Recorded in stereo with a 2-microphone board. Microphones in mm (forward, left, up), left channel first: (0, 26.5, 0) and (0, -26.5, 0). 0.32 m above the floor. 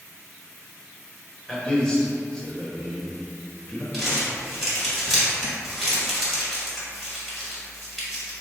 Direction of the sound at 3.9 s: Centre (ahead or behind).